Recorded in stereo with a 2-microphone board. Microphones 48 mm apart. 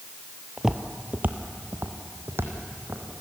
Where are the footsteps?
10° right (ahead or behind), 1.1 m; by 3.2 s 65° right (ahead or behind), 3 m.